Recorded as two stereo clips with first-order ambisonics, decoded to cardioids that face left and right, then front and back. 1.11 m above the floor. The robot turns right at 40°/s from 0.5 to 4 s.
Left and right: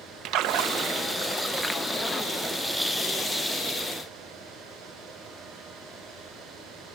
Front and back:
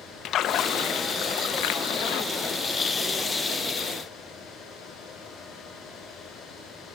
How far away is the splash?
About 0.7 m.